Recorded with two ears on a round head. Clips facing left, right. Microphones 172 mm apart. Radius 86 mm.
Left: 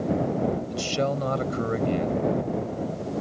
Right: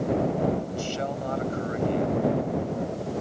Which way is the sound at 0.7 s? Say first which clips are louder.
Left 4 dB; 65° left (ahead or behind).